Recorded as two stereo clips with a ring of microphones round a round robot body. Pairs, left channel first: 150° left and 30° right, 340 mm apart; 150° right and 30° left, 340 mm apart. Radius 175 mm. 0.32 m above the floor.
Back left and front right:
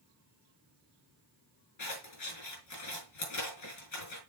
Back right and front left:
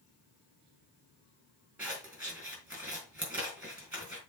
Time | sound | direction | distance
1.8 | scissors | 115° left | 4 m